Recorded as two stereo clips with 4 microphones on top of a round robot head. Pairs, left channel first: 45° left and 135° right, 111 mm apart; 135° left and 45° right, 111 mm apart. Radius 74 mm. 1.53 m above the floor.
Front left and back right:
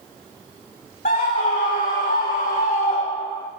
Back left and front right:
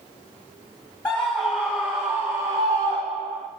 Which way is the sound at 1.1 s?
55° left.